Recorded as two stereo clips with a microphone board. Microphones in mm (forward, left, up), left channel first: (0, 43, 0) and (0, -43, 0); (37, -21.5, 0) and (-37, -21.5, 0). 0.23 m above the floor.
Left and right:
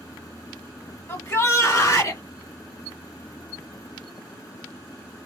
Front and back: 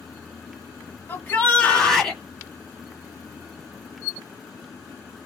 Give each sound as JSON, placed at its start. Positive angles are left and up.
{"t": 1.1, "sound": "a shout", "azimuth_deg": 40, "distance_m": 1.4}